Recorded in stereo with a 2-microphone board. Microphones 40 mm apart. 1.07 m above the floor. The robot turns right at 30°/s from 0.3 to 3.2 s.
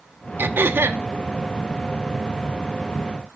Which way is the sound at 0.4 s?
55° right (ahead or behind).